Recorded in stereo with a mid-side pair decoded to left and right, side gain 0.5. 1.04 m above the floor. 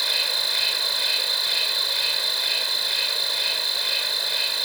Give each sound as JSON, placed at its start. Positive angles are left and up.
{"t": 0.0, "sound": "an insect", "azimuth_deg": -10}